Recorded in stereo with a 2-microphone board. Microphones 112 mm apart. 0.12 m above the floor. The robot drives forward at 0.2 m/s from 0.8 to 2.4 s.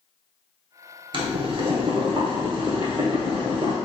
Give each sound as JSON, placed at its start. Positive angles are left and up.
{"t": 1.1, "sound": "boiling", "side_deg": -50, "distance_m": 0.9}